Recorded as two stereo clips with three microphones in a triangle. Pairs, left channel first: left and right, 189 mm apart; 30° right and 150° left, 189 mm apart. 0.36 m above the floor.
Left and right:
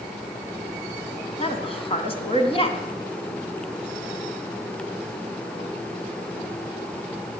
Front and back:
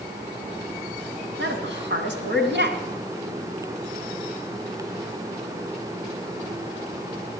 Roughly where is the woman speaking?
Behind left.